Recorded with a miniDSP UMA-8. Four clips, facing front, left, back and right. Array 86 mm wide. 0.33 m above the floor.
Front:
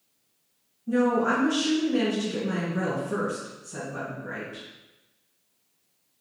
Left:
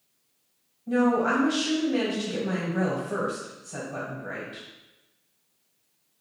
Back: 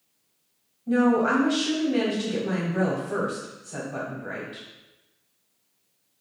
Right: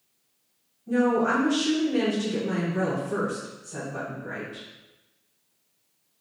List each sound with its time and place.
0.9 s a woman speaking: 150° left, 1.4 m